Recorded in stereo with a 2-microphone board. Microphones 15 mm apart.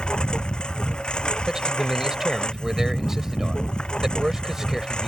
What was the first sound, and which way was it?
A lawn mower, 70° left (ahead or behind).